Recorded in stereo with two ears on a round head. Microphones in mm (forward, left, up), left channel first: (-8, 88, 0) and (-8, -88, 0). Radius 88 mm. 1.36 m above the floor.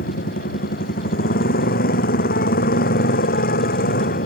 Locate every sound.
0.0 s a motorcycle: 50° left (ahead or behind)